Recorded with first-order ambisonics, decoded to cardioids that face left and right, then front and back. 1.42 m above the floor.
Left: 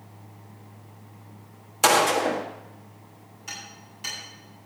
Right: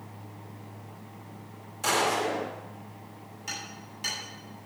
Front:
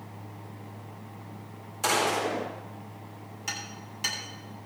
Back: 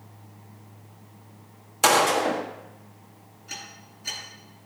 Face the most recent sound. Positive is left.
turn(degrees=-10)